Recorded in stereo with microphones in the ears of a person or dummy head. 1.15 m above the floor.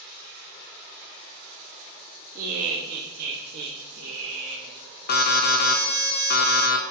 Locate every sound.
2.4 s laughter: 35° right (ahead or behind), 2 m
5.1 s an alarm: 45° left (ahead or behind), 1.0 m